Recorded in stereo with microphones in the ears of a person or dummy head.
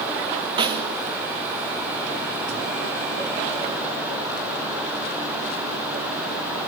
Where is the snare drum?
25° right (ahead or behind), 1.0 m.